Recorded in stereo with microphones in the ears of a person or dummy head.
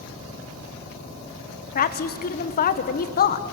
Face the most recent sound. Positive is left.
turn(degrees=40)  # may be behind; listen again after turning